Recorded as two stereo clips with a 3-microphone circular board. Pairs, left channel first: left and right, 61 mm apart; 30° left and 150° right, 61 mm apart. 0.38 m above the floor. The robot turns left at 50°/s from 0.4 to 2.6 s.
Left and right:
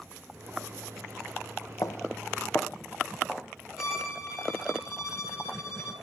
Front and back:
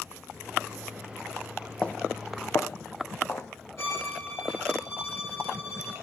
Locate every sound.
1.8 s footsteps: 100° left, 0.7 m; by 3.5 s 10° right, 1.4 m
3.8 s a violin: 10° right, 4 m